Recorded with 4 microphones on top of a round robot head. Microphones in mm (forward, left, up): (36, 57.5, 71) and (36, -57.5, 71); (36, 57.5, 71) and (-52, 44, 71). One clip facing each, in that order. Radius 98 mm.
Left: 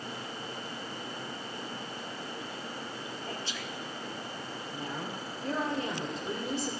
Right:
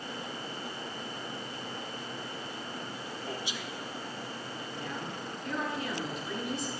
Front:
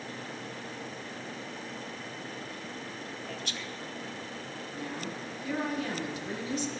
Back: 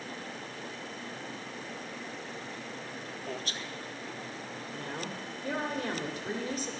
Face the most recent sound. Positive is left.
turn(degrees=150)